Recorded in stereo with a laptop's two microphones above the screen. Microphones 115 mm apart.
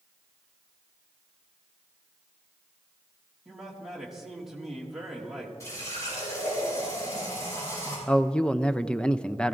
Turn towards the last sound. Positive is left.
turn(degrees=10)  # may be behind; listen again after turning